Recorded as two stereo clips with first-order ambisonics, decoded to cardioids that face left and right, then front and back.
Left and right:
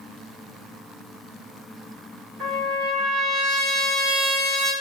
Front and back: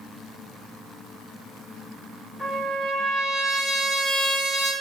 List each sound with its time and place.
2.4 s a trumpet: 85° right, 1.4 m